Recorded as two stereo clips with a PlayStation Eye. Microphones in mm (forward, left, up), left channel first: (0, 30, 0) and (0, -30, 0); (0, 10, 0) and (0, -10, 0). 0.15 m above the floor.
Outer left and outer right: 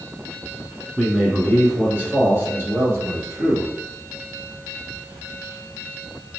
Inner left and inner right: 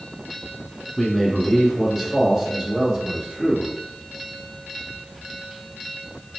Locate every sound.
1.0 s a man speaking: 10° right (ahead or behind), 1.7 m; by 3.7 s 50° right (ahead or behind), 2.5 m